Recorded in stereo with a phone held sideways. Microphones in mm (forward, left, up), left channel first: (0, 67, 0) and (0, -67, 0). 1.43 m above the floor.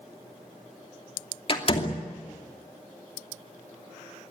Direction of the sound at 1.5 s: 40° left (ahead or behind).